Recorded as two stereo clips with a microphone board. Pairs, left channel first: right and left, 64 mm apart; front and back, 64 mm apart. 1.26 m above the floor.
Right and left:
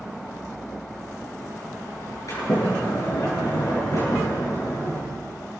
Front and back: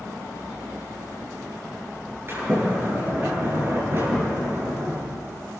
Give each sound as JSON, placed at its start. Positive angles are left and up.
{"t": 2.3, "sound": "a sliding door", "azimuth_deg": -125, "distance_m": 9.0}